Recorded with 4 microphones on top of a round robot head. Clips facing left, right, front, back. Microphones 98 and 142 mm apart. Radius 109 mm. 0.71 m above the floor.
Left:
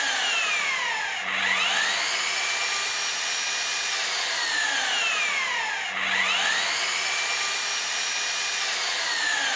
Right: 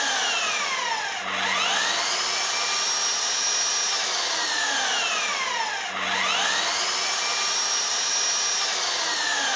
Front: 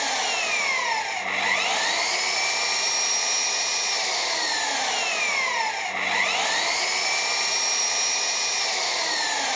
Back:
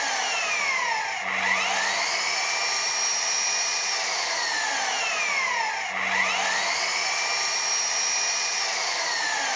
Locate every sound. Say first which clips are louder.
0.0 s an engine running: right 2 dB, front 2 dB; 45° right, 0.7 m